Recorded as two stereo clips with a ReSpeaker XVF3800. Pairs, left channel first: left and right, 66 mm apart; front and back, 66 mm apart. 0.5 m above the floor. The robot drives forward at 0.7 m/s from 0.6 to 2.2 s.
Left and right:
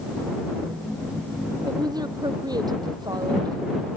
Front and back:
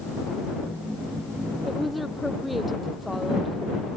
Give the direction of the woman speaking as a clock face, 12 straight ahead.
3 o'clock.